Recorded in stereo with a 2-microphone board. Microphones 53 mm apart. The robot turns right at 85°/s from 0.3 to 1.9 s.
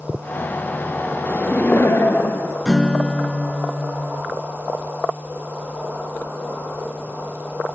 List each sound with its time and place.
1.3 s laughter: 25° left, 2 m; by 2.5 s 75° left, 2 m
2.6 s a guitar: 10° left (ahead or behind), 0.8 m